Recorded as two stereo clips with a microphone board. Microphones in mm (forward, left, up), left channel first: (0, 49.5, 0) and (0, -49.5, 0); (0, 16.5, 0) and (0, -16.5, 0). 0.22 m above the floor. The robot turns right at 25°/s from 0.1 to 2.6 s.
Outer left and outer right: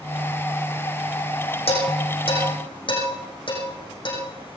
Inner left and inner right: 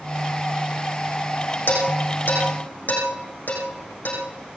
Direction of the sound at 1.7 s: 80° left.